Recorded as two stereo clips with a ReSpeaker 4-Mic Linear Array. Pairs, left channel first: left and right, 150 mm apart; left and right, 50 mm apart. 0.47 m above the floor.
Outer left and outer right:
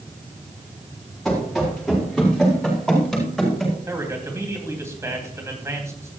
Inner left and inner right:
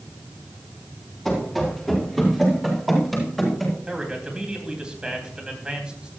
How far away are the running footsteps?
About 5.5 m.